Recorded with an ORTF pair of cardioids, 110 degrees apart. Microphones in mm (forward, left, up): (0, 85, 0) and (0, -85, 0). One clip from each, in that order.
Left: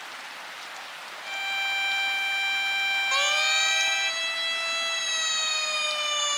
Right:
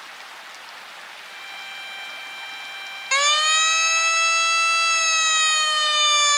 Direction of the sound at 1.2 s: 40° left.